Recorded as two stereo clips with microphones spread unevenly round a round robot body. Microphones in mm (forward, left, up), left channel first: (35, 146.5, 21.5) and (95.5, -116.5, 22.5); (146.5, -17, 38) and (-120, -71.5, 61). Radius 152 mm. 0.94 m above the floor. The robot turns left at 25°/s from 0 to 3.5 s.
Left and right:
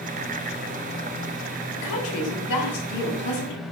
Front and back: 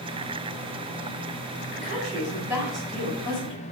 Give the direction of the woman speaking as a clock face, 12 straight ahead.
8 o'clock.